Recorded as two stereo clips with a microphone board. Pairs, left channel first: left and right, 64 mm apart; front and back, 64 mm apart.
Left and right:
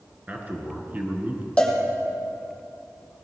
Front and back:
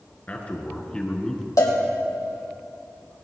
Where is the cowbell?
20° left, 2.5 m.